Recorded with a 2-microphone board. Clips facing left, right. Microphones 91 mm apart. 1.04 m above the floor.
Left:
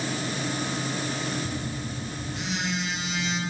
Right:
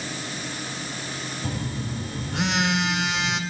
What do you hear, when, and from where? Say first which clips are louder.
1.4 s a phone buzzing: right 2 dB; 80° right, 1.9 m